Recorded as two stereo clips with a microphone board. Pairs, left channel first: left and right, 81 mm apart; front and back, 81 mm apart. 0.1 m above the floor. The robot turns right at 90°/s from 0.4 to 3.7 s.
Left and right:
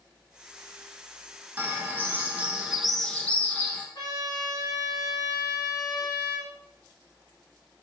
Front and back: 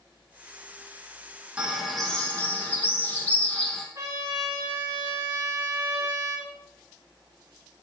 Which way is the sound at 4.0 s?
135° left.